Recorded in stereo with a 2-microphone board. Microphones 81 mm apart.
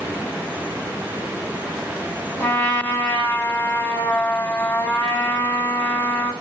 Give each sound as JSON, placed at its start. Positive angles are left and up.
{"t": 2.4, "sound": "a trumpet", "side_deg": 25, "distance_m": 4.0}